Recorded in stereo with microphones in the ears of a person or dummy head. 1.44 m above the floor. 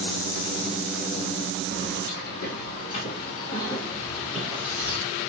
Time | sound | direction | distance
1.7 | keys jangling | 60° left (ahead or behind) | 1.3 m